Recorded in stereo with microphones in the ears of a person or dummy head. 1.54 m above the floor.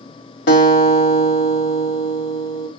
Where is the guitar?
70° left (ahead or behind), 2.5 m.